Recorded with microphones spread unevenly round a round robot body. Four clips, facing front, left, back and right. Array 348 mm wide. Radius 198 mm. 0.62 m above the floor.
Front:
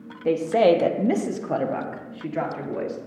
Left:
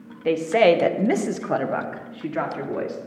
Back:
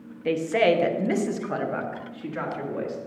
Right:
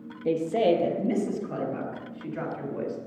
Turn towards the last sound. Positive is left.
turn(degrees=70)